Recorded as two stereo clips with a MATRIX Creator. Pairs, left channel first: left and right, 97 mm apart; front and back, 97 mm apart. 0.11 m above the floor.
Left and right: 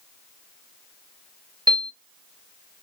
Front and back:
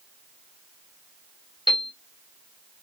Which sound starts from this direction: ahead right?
A piano, at 1.7 s.